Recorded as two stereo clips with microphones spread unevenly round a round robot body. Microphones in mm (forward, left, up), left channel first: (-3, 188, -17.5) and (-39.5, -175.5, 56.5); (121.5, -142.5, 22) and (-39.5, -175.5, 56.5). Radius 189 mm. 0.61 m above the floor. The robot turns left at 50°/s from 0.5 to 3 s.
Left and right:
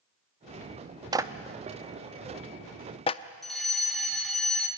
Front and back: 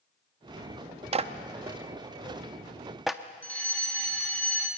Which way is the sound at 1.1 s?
170° left.